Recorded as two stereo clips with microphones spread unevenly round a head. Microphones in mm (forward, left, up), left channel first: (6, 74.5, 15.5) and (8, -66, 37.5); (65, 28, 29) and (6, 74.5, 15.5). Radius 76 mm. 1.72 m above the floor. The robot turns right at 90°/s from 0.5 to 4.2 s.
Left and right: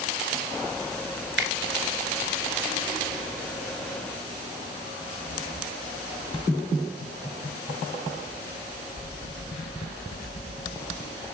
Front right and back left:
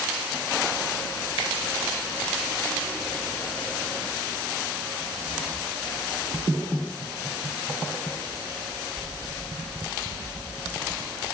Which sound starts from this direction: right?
A finger snap, at 1.4 s.